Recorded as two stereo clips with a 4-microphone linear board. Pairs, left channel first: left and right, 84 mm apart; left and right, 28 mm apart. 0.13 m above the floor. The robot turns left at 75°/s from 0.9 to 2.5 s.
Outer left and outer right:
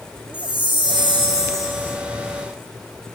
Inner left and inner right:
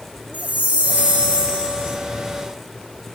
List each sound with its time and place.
0.3 s a chime: 90° right, 1.2 m; by 2.0 s 170° right, 1.2 m